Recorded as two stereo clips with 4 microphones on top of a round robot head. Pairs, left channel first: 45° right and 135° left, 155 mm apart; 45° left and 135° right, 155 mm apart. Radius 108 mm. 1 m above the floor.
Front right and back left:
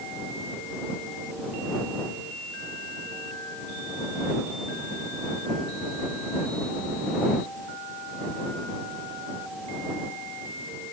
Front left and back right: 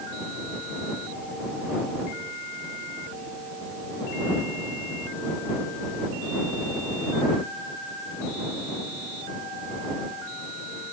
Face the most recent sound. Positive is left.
No sound to turn to.